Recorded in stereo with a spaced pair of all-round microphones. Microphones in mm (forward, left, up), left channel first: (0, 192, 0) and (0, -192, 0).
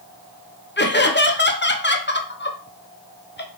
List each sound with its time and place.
0.8 s laughter: 25° left (ahead or behind), 0.7 m